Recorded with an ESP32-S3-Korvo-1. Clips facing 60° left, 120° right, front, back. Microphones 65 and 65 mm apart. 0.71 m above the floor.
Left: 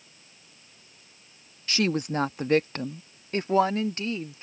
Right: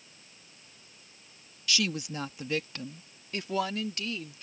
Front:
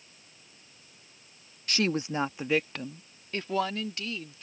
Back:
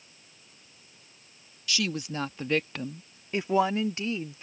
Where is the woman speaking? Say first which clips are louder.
Left 6 dB, front 3 dB; 20° left; by 4.4 s 120° left.